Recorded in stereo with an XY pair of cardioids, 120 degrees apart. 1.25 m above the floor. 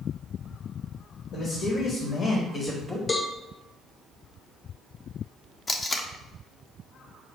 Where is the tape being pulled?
25° left, 0.5 m.